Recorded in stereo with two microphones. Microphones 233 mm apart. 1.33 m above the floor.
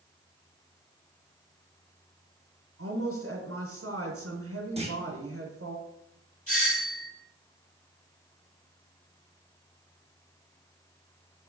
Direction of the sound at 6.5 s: 80° left.